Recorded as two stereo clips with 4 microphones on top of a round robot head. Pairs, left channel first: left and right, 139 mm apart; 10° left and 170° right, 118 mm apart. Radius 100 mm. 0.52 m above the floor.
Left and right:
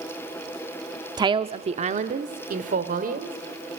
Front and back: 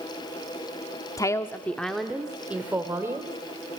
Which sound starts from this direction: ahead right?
A woman speaking, at 1.2 s.